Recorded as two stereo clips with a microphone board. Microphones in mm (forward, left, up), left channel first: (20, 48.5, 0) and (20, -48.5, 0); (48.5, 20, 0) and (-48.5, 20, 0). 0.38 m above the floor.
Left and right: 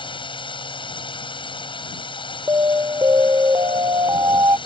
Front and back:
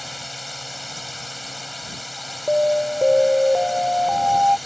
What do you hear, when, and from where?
0.0 s a drone: 90° left
2.5 s an alarm: 105° right